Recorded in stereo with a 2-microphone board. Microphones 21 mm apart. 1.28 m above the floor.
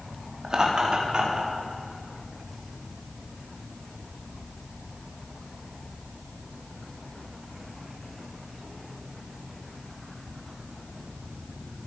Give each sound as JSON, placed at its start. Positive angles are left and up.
{"t": 0.4, "sound": "laughter", "side_deg": -35, "distance_m": 3.0}